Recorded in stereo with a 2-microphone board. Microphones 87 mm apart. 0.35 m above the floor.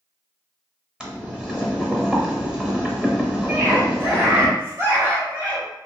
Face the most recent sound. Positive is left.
turn(degrees=-40)  # may be behind; listen again after turning